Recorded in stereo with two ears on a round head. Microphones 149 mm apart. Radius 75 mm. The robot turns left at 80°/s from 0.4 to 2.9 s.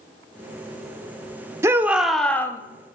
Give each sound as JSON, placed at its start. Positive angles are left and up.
{"t": 1.6, "sound": "a shout", "side_deg": -20, "distance_m": 0.8}